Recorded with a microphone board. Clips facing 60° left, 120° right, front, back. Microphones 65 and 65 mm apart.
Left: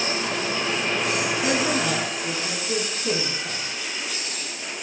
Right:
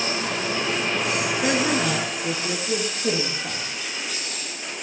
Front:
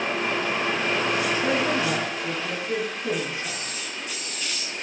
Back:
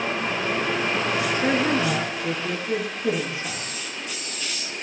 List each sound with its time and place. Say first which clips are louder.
1.3 s a woman speaking: right 3 dB, back 2 dB; 175° right, 2 m; by 3.9 s 115° right, 3 m